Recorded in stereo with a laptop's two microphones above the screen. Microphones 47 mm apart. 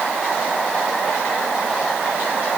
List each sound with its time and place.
Only background noise.